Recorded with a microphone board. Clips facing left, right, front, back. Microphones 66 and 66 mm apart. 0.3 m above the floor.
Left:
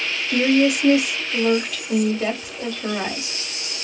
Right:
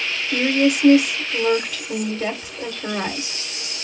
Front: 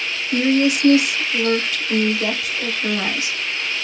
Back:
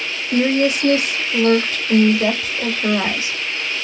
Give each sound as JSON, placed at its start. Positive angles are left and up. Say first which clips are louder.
{"t": 0.3, "sound": "a woman speaking", "louder": "left 1 dB, back 1 dB", "azimuth_deg": -175, "distance_m": 1.0}